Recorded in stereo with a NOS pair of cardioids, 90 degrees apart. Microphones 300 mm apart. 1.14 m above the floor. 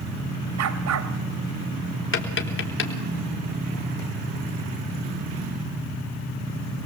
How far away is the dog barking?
About 2.5 m.